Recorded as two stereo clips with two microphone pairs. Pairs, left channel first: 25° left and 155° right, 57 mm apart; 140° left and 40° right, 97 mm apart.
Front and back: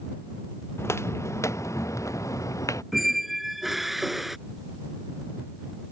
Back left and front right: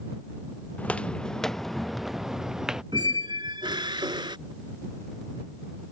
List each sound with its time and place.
0.8 s footsteps: 65° left; by 2.8 s 40° left
2.9 s a squeak: 70° right